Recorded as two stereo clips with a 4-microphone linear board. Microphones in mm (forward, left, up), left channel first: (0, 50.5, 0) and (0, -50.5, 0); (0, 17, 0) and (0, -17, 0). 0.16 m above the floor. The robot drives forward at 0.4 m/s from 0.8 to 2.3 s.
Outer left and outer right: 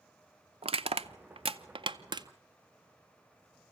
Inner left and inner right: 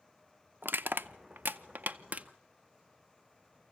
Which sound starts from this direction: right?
Crushing, at 0.6 s.